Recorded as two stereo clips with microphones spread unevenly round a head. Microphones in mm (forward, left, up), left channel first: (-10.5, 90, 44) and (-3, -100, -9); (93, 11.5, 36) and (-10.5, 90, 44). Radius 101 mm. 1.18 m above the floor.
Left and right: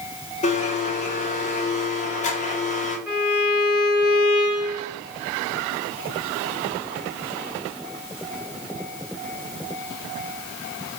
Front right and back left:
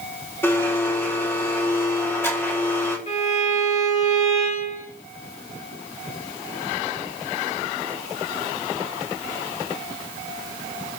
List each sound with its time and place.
0.4 s a blender: 35° left, 4.5 m
3.1 s a violin: 5° right, 4 m